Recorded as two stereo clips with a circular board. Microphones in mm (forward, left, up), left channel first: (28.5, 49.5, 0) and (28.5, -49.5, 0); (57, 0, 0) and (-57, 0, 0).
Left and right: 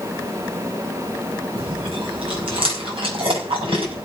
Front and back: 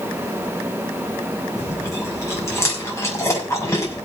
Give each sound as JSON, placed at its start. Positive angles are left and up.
{"t": 1.6, "sound": "chewing", "azimuth_deg": -65, "distance_m": 5.0}